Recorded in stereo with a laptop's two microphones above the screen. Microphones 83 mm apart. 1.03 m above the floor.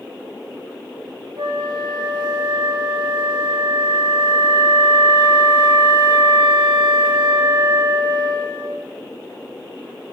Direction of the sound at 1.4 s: 70° right (ahead or behind).